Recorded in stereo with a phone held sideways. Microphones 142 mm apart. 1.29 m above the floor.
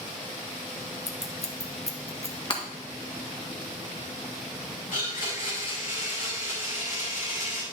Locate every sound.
1.1 s scissors: 50° left (ahead or behind), 1.2 m
2.5 s breaking glass: 35° left (ahead or behind), 1.8 m
4.9 s a blender: 80° left, 5.5 m